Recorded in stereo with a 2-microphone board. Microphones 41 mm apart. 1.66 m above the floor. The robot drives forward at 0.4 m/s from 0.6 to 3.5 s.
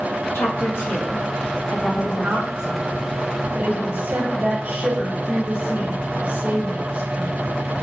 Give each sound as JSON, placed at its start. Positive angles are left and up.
{"t": 0.3, "sound": "a woman speaking", "side_deg": 70, "distance_m": 2.5}
{"t": 1.9, "sound": "a woman speaking", "side_deg": -35, "distance_m": 2.5}